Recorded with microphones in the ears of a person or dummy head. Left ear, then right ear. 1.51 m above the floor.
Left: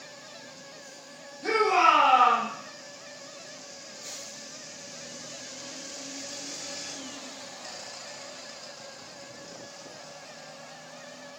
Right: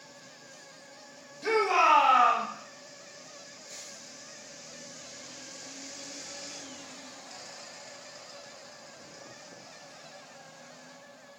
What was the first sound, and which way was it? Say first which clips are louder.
A shout: left 2 dB; 85° right.